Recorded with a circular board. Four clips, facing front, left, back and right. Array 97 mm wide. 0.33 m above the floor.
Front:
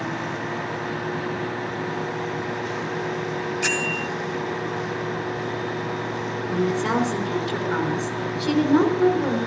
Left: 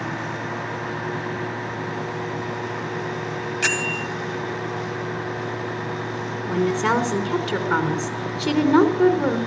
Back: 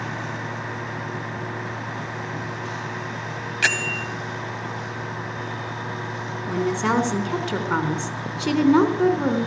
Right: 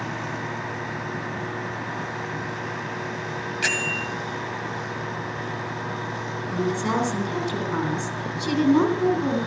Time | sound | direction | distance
3.6 | a bell | 170° left | 2 m
6.5 | a woman speaking | 130° left | 3.5 m